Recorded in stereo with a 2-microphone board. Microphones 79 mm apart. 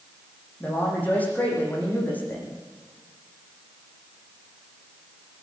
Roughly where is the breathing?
I don't hear breathing.